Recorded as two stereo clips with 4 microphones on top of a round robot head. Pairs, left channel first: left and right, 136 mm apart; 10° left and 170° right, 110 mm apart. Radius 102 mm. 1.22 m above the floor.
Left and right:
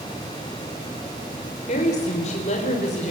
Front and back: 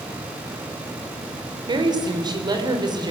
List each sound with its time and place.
1.7 s a woman speaking: 140° left, 4 m